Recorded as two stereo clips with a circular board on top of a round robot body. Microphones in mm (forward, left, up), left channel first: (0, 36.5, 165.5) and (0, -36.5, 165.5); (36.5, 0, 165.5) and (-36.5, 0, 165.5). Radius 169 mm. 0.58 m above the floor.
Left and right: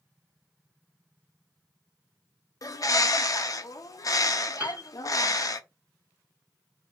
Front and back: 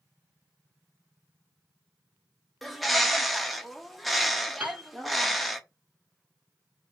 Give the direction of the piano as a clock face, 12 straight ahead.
4 o'clock.